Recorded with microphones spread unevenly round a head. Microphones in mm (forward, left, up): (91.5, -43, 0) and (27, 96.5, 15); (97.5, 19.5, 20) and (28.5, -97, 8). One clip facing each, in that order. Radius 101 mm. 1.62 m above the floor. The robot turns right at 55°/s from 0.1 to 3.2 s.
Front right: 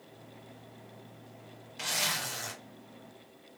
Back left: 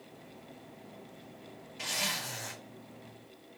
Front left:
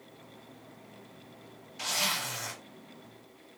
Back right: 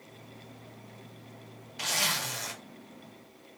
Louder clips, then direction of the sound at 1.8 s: Front right 2 dB, back right 1 dB; 95° right.